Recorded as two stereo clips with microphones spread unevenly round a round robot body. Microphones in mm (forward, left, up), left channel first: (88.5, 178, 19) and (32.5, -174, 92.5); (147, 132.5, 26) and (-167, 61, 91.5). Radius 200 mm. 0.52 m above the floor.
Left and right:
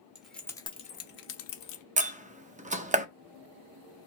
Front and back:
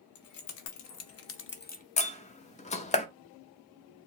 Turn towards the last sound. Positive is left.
turn(degrees=-25)